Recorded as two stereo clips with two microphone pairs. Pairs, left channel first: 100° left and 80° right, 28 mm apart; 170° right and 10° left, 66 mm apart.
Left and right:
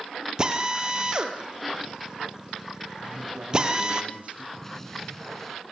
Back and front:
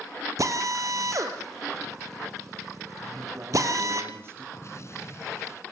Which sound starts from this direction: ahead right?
A man speaking, at 3.0 s.